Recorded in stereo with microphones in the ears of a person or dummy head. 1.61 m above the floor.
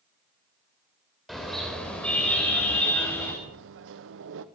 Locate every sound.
1.3 s a car horn: centre (ahead or behind), 4 m; by 3.3 s 15° left (ahead or behind), 5.5 m
3.4 s a microwave: 70° right (ahead or behind), 0.9 m